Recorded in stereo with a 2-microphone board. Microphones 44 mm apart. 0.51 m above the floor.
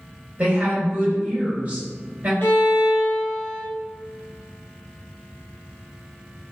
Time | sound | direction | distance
0.4 | a woman speaking | 20° right (ahead or behind) | 1.8 m
2.4 | a violin | 55° left (ahead or behind) | 0.7 m